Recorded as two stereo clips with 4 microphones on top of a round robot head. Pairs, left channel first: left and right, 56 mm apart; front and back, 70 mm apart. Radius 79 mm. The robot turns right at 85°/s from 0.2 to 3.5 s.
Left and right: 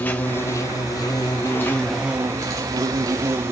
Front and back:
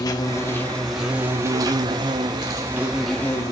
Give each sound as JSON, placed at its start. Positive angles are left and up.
{"t": 0.0, "sound": "an insect", "azimuth_deg": 35, "distance_m": 2.5}